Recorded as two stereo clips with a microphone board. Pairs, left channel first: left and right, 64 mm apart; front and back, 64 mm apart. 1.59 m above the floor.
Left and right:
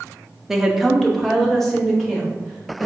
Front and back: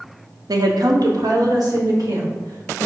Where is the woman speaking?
170° right, 0.5 m; by 2.9 s 170° left, 1.7 m.